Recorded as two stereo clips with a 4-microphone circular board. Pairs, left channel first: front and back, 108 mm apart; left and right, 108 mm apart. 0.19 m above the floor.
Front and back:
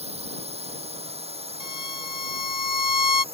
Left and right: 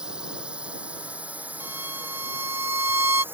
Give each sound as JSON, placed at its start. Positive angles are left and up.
{"t": 0.0, "sound": "a drone", "azimuth_deg": -175}
{"t": 1.6, "sound": "a violin", "azimuth_deg": -25}